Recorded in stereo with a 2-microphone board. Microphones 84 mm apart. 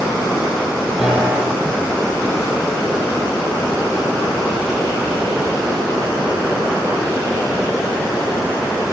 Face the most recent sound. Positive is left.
turn(degrees=-5)  # may be behind; listen again after turning